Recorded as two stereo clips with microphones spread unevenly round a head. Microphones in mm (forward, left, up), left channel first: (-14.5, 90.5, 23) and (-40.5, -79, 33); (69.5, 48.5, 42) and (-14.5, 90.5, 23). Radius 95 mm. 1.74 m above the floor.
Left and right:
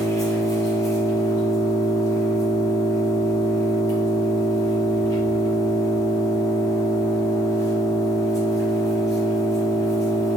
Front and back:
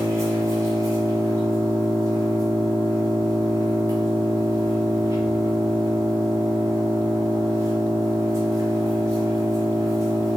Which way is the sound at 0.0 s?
130° left.